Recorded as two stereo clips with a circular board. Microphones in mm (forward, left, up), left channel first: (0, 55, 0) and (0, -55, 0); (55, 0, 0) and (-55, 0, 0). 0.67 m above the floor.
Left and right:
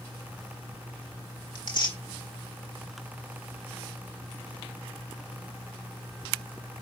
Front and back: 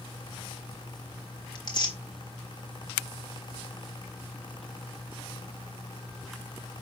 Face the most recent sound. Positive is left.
turn(degrees=45)